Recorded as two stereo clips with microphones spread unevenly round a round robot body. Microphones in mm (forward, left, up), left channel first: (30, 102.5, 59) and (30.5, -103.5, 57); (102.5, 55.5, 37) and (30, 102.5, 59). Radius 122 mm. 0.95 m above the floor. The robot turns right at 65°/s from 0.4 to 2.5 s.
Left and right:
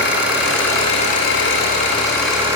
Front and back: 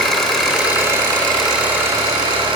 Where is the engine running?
55° left, 3.5 m; by 2.6 s 165° right, 3.5 m.